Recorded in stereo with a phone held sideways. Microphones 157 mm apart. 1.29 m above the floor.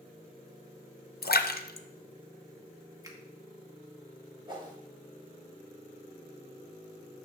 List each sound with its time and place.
1.2 s a splash: 85° left, 0.5 m
3.0 s a finger snap: 20° right (ahead or behind), 1.1 m
4.5 s a whoosh: 30° right (ahead or behind), 1.3 m